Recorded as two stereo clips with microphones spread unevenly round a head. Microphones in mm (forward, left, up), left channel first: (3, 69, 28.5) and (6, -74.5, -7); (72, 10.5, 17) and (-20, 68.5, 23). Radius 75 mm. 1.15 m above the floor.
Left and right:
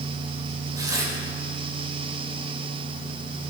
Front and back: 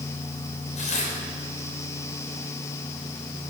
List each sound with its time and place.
0.8 s tearing paper: 20° right, 5.5 m